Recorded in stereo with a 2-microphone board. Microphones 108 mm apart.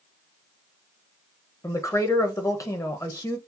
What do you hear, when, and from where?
1.6 s a woman speaking: 30° left (ahead or behind), 0.9 m